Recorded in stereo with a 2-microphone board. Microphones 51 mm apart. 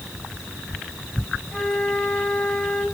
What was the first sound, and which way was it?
A flute, 10° left (ahead or behind).